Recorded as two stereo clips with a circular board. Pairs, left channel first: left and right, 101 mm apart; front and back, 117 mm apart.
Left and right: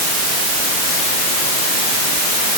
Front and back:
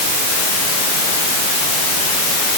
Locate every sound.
Only background noise.